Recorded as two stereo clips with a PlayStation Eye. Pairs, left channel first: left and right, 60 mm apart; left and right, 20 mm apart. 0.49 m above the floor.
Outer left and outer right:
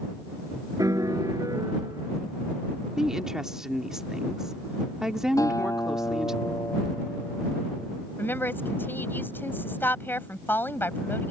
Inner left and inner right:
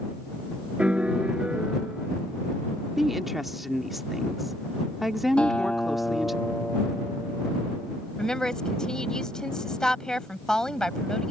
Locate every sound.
0.8 s a piano: 90° right
3.0 s a woman speaking: 10° right (ahead or behind)
5.4 s a guitar: 70° left (ahead or behind)
8.2 s a woman speaking: 35° left (ahead or behind)